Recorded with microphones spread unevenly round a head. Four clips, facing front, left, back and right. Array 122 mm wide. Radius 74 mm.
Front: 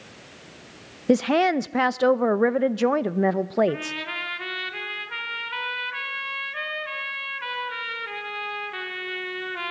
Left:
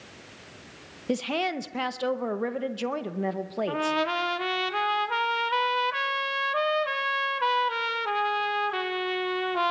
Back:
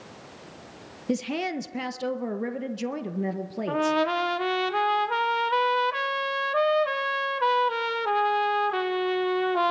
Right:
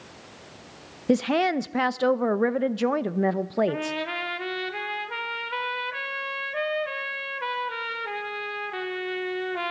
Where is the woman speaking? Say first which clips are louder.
Right 6 dB, front 9 dB; 30° right, 0.6 m.